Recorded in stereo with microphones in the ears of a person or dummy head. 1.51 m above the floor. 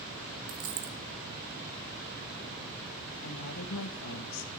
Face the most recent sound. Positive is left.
turn(degrees=85)